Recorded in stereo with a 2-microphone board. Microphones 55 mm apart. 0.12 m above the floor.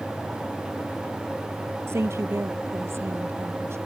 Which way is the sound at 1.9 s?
55° right (ahead or behind).